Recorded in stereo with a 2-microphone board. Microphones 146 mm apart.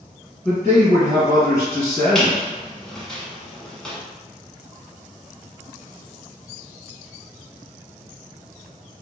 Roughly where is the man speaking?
Centre.